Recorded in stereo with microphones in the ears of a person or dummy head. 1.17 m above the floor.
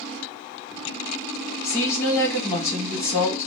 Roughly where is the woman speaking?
Centre.